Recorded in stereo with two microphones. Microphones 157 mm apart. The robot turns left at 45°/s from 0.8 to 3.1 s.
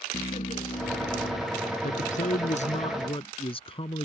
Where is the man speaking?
105° left; by 4.0 s 45° left.